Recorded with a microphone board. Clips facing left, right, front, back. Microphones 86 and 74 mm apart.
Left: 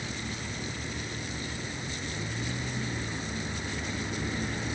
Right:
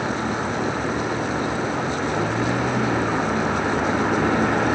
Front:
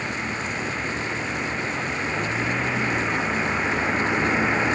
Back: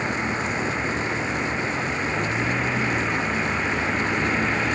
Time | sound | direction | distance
0.0 | a vehicle | 105° right | ?